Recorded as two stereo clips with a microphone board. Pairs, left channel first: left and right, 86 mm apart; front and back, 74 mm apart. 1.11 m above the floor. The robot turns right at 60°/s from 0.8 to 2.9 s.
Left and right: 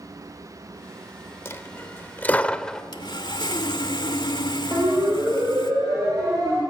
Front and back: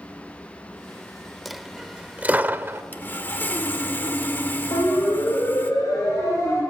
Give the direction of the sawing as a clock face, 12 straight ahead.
10 o'clock.